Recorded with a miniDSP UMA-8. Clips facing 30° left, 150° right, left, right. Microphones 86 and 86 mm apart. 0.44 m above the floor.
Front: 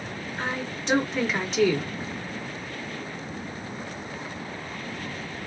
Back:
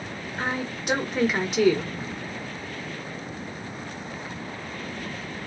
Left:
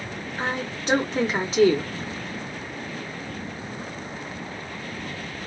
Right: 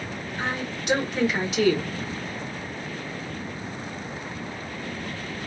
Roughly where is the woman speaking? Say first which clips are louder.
Back 2 dB, left 2 dB; behind left.